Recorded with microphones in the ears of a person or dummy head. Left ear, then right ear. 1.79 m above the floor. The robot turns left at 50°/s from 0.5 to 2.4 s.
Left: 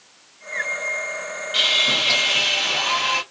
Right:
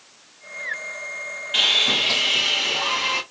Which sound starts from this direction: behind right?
Sawing, at 1.5 s.